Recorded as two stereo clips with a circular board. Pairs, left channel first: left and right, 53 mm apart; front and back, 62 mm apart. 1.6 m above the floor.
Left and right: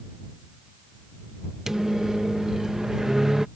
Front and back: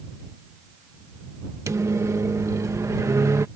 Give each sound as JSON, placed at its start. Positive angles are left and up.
{"t": 1.7, "sound": "a microwave", "azimuth_deg": -170}